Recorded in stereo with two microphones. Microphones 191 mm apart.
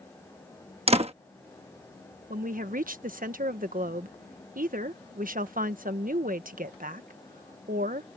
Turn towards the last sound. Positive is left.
turn(degrees=-45)  # may be behind; listen again after turning